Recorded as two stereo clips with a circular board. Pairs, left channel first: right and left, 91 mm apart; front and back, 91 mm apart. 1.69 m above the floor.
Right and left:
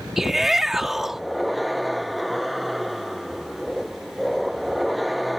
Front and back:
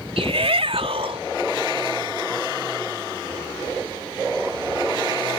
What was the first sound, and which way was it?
A shout, 175° left.